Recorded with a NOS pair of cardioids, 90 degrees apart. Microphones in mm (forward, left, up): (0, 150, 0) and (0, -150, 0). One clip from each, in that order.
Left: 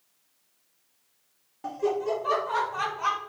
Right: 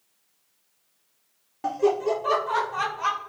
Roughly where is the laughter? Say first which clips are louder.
Right 5 dB; ahead right.